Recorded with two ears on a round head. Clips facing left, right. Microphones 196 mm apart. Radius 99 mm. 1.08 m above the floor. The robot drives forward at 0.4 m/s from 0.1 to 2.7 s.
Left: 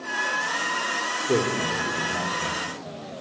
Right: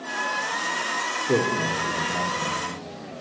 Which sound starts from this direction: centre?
A man speaking, at 1.1 s.